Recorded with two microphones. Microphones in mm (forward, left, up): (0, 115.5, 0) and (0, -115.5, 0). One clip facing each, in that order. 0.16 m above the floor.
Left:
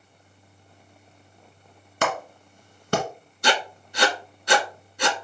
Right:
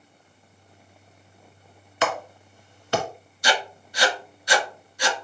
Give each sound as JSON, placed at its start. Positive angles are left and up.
{"t": 2.0, "sound": "a clap", "side_deg": 50, "distance_m": 1.2}
{"t": 3.4, "sound": "writing", "side_deg": 60, "distance_m": 0.6}